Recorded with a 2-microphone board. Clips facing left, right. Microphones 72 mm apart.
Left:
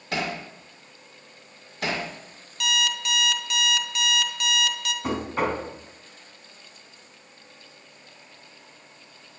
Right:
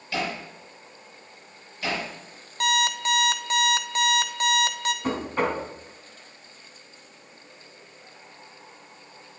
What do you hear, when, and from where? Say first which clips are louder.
0.1 s hammering: even; 75° left (ahead or behind), 6 m
2.6 s an alarm clock: right 3 dB; 40° right (ahead or behind), 1.0 m
5.0 s knocking: left 1 dB; 5° left (ahead or behind), 3.5 m